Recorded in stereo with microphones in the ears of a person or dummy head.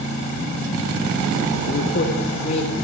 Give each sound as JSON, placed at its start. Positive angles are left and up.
{"t": 1.7, "sound": "a woman speaking", "side_deg": 50, "distance_m": 0.6}